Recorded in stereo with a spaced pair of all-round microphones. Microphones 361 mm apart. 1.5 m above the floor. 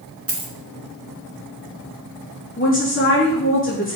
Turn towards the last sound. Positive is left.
turn(degrees=30)  # may be behind; listen again after turning